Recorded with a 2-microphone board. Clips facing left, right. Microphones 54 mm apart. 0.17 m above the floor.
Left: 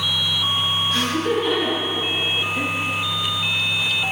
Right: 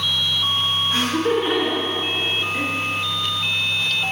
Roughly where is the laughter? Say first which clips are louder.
Right 2 dB; right.